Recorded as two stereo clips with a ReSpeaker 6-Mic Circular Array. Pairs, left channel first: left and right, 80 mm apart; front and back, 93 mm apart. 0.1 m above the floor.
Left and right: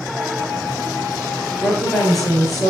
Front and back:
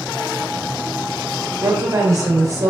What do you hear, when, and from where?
1.6 s a woman speaking: 175° left, 1.5 m